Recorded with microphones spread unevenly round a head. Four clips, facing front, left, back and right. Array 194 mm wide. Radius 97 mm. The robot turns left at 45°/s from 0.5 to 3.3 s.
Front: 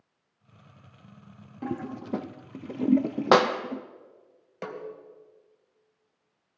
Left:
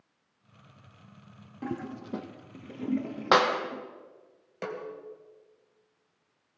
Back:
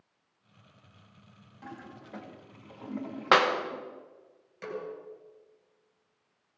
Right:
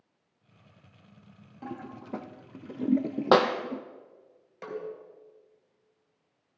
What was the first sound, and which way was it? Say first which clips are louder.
A toilet flushing: left 4 dB, front 12 dB; 35° left.